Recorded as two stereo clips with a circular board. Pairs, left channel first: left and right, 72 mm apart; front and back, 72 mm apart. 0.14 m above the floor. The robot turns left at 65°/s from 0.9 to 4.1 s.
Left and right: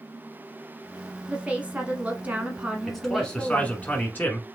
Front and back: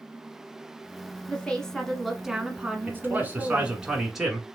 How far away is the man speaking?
About 1.4 m.